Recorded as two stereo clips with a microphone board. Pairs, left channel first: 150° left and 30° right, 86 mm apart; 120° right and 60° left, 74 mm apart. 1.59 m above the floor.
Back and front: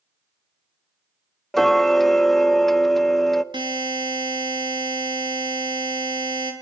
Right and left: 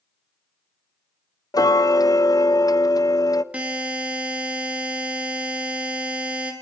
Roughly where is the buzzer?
Ahead.